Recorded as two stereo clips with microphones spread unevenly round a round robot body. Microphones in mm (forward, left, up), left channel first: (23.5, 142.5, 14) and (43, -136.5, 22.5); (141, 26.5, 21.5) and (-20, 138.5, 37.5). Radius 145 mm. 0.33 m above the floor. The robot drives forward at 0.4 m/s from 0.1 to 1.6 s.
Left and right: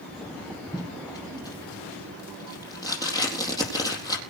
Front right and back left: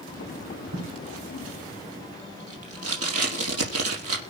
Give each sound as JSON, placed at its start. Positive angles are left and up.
{"t": 0.7, "sound": "tape being pulled", "azimuth_deg": 170, "distance_m": 4.0}